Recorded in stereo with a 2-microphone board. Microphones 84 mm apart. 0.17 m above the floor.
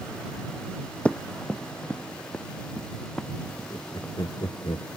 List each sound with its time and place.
1.1 s running footsteps: 15° left (ahead or behind); by 4.6 s 10° left (ahead or behind)
3.7 s laughter: 55° left (ahead or behind)